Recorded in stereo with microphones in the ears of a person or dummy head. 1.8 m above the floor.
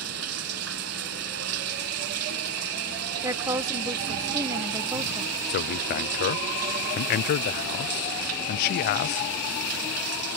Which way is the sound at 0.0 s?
80° right.